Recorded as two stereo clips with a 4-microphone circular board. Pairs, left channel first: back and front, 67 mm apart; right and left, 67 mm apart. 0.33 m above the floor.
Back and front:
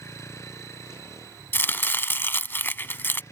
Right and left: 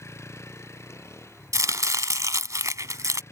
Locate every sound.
0.0 s a vehicle: 135° right; by 3.3 s 140° right
1.5 s chopping: 125° left